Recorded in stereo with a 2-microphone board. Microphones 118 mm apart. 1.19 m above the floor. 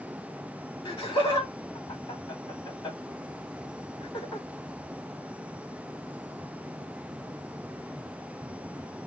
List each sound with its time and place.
0.8 s laughter: 45° left (ahead or behind), 2.5 m